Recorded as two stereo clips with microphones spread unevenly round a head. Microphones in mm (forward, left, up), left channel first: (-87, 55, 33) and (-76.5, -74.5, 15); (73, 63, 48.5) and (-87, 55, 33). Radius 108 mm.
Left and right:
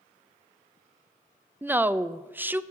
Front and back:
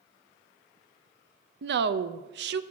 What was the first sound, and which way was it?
A woman speaking, 160° right.